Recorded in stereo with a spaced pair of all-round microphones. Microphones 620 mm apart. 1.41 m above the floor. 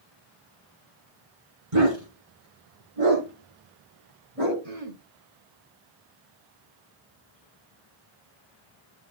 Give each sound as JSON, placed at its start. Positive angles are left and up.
{"t": 1.7, "sound": "a dog barking", "side_deg": -60, "distance_m": 4.0}
{"t": 4.6, "sound": "throat clearing", "side_deg": -65, "distance_m": 4.0}